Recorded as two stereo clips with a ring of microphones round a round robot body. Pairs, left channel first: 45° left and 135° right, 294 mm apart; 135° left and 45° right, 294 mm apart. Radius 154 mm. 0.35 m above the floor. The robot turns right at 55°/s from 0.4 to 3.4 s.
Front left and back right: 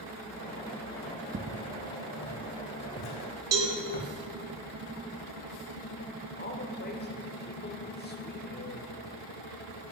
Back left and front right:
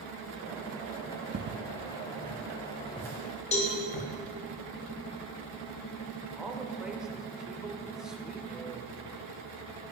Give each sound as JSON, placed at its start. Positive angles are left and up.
{"t": 1.3, "sound": "footsteps", "azimuth_deg": -90, "distance_m": 0.6}
{"t": 3.5, "sound": "a cowbell", "azimuth_deg": -160, "distance_m": 2.0}
{"t": 6.4, "sound": "a man speaking", "azimuth_deg": 40, "distance_m": 1.2}